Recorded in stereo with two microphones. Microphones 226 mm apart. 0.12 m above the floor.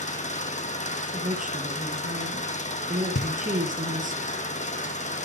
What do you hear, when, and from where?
0.0 s an engine running: 30° left (ahead or behind), 2 m
1.1 s a woman speaking: 35° right (ahead or behind), 3.5 m
3.1 s knocking: 45° left (ahead or behind), 1.8 m